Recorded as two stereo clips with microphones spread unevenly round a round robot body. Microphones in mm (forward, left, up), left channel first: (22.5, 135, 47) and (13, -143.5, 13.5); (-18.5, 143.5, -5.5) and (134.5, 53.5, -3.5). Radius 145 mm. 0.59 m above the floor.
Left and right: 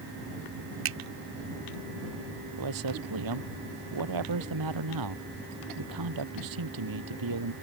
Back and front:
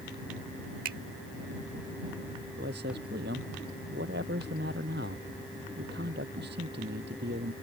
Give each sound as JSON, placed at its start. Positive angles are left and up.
{"t": 0.8, "sound": "a finger snap", "azimuth_deg": -75}
{"t": 2.6, "sound": "a man speaking", "azimuth_deg": -90}